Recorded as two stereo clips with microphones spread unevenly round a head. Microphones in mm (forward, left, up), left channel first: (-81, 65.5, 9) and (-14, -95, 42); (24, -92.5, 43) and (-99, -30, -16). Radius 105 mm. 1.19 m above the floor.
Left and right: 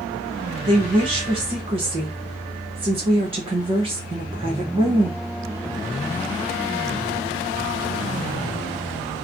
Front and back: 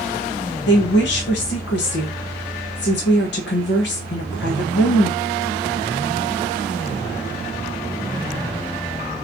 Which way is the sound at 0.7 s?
Straight ahead.